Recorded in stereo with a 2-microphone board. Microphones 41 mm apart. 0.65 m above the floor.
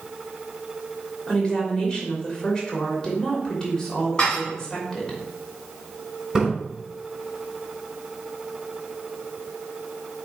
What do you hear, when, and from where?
1.3 s a woman speaking: 20° left (ahead or behind), 3 m
4.2 s dishes clattering: 20° left (ahead or behind), 3.5 m
6.3 s a splash: 10° right (ahead or behind), 4.5 m